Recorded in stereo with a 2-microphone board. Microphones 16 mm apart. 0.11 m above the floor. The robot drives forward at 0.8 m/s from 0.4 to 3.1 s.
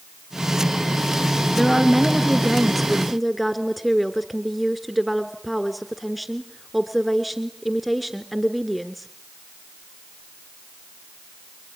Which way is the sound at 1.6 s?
5° left (ahead or behind).